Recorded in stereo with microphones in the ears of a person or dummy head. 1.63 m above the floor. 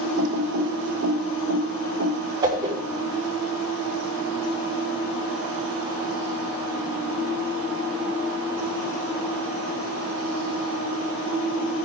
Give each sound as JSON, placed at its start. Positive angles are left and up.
{"t": 0.2, "sound": "typing on a keyboard", "side_deg": -70, "distance_m": 0.9}
{"t": 2.4, "sound": "a whoosh", "side_deg": -25, "distance_m": 3.0}